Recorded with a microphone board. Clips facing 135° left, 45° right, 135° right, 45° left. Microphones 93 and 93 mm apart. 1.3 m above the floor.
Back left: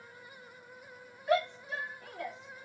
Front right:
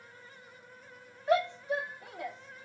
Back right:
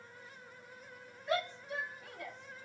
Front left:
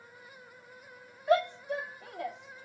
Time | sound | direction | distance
1.3 | a shout | 10° left | 1.3 m